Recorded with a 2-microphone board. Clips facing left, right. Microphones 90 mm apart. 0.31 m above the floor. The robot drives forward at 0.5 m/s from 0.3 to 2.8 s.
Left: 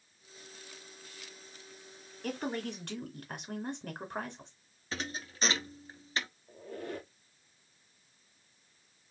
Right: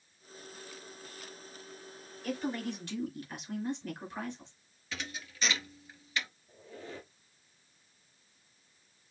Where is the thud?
40° left (ahead or behind), 0.7 m.